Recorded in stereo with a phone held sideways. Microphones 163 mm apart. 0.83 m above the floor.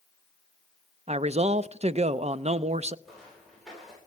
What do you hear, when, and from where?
1.1 s a man speaking: 45° right (ahead or behind), 0.5 m
3.0 s footsteps: centre (ahead or behind), 10 m